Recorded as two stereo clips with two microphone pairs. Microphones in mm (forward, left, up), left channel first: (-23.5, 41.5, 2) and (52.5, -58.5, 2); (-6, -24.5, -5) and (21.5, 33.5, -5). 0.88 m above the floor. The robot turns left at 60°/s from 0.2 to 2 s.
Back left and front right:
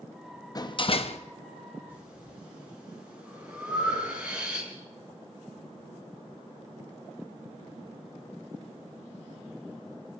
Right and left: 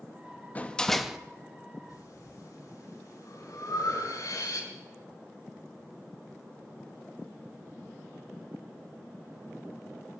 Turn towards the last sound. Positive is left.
turn(degrees=-130)